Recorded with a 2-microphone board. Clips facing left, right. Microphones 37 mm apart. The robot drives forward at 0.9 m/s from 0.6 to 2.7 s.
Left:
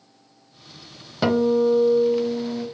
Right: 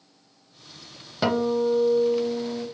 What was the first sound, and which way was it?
A guitar, 5° left (ahead or behind).